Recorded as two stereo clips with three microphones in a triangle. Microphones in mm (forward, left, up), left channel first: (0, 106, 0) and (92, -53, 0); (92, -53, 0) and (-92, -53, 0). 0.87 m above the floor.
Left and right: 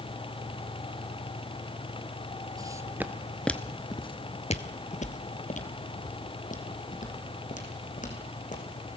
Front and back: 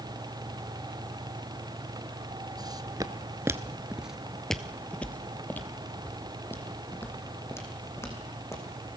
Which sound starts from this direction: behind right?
Footsteps, at 2.6 s.